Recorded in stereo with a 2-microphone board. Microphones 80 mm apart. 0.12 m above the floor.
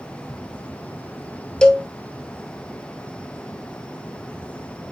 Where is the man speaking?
I don't hear a man speaking.